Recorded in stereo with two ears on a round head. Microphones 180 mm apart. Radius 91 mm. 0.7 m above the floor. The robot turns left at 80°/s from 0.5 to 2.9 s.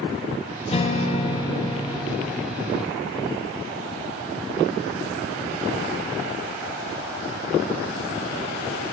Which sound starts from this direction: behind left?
A guitar, at 0.7 s.